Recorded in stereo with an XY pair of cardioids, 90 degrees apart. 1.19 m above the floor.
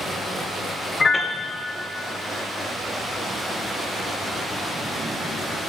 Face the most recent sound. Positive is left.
turn(degrees=35)